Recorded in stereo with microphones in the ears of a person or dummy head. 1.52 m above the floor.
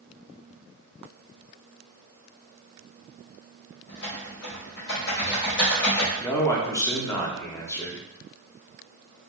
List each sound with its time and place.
3.9 s typing on a keyboard: 70° left (ahead or behind), 1.8 m
6.2 s a man speaking: 20° left (ahead or behind), 0.6 m